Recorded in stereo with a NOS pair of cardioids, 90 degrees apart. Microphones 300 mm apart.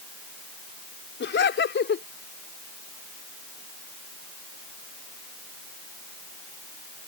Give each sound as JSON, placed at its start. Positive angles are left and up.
{"t": 1.2, "sound": "laughter", "azimuth_deg": 40}